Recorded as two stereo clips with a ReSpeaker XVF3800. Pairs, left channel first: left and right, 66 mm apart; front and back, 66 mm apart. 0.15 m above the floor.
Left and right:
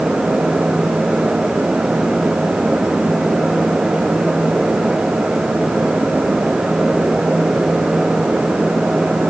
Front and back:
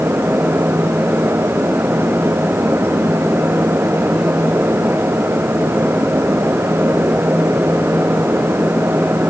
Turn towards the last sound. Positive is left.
No sound to turn to.